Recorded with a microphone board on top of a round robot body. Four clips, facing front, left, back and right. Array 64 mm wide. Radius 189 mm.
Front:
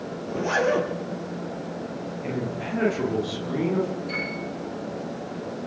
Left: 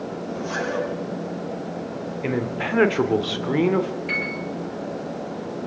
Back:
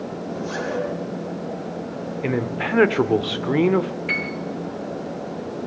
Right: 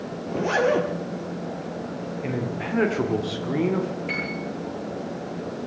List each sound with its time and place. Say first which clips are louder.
0.3 s a zipper: right 7 dB, front 6 dB; 55° right, 4 m
2.2 s a man speaking: left 5 dB, back 7 dB; 160° left, 2.5 m
4.1 s a piano: left 2 dB, back 4 dB; 175° left, 9 m